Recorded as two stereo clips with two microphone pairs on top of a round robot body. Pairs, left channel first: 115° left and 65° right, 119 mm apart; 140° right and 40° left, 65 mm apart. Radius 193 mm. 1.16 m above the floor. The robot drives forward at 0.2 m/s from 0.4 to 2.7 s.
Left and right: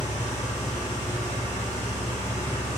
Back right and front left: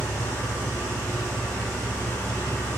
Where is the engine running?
145° left, 1.2 m; by 2.8 s 155° left, 1.6 m.